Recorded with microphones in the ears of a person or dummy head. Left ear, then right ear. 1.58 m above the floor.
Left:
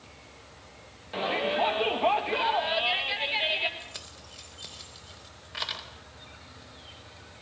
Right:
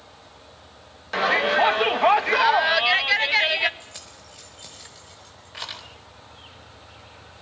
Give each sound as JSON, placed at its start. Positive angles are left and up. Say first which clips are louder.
{"t": 1.1, "sound": "a shout", "louder": "right 8 dB", "side_deg": -60, "distance_m": 1.7}
{"t": 3.8, "sound": "keys jangling", "louder": "even", "side_deg": 5, "distance_m": 4.5}